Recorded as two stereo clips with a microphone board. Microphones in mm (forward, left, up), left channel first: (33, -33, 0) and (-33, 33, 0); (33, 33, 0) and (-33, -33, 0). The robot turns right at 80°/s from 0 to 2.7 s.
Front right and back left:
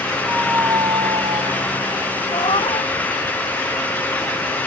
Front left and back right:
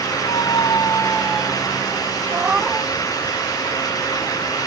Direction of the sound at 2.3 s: 75° right.